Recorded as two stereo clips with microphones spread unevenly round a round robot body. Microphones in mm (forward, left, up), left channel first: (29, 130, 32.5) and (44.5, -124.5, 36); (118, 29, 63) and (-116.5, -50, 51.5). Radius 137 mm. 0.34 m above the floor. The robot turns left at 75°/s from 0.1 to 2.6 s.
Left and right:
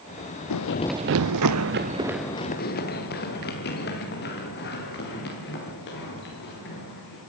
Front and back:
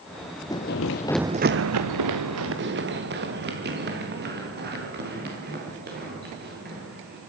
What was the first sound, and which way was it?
Running footsteps, 95° left.